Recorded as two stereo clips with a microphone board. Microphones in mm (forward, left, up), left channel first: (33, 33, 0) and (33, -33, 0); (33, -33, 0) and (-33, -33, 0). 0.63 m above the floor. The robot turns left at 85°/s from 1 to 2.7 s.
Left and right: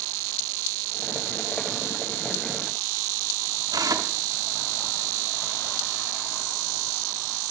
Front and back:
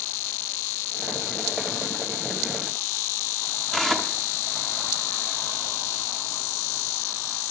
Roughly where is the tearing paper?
Right.